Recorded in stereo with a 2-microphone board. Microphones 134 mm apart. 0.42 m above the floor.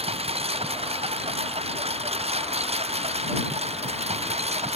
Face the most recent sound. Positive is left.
turn(degrees=-50)  # may be behind; listen again after turning